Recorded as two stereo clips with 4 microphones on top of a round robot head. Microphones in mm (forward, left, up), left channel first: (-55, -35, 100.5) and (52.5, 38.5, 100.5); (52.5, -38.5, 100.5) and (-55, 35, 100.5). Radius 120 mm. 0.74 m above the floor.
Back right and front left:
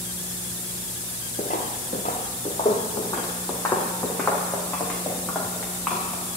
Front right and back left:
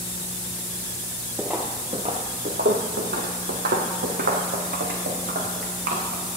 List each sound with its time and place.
1.4 s footsteps: 120° right, 0.8 m; by 6.4 s 130° left, 3.5 m